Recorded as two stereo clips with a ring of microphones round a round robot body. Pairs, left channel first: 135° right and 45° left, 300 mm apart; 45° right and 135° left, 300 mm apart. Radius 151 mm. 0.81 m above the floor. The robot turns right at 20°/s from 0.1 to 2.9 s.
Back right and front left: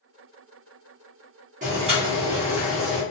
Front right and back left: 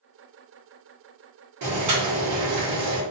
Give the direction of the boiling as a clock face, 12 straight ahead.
8 o'clock.